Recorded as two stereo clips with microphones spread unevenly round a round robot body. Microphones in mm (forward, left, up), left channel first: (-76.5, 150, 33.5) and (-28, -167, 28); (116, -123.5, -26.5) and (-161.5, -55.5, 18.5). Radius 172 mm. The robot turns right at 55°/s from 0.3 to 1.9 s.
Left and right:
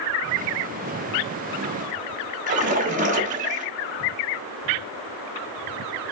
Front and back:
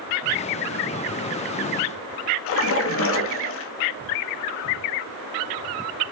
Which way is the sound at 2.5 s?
20° right.